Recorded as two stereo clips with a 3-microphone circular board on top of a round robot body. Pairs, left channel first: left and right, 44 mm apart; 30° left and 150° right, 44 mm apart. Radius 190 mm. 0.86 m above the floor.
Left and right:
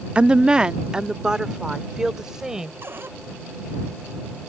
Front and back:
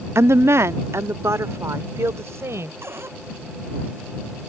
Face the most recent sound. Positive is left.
turn(degrees=-125)